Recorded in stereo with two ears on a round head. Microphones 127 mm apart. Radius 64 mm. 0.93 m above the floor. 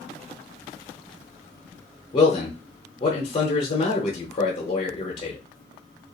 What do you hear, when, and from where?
2.1 s a man speaking: 35° left (ahead or behind), 0.7 m